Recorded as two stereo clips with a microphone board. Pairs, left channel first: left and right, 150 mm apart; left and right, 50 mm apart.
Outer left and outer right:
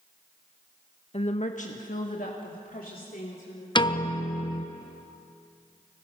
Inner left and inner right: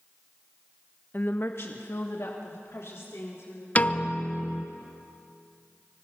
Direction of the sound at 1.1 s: 45° left (ahead or behind).